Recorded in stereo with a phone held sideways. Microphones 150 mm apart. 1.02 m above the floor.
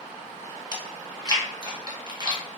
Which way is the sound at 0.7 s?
30° right (ahead or behind).